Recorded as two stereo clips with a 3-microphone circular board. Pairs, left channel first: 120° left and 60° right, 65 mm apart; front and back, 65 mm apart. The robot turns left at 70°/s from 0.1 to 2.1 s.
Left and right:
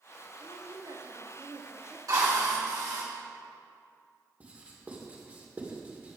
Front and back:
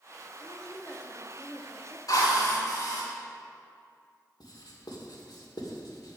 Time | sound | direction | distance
0.4 | a woman speaking | 25° right | 1.9 m
2.1 | a drill | 30° right | 2.5 m
4.4 | writing | 5° left | 2 m